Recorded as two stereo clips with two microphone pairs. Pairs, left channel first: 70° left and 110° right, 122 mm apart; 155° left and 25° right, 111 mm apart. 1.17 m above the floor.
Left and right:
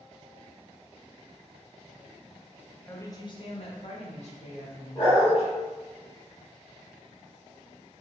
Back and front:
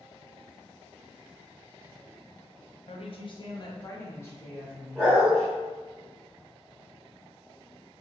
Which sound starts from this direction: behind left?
A woman speaking, at 2.9 s.